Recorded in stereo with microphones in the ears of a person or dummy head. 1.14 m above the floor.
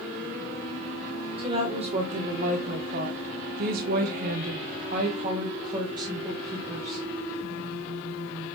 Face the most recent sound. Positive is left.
turn(degrees=-15)  # may be behind; listen again after turning